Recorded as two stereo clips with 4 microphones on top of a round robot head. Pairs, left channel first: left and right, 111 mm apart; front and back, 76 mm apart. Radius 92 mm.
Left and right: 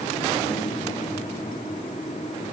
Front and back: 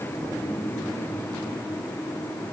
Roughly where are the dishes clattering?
I don't hear dishes clattering.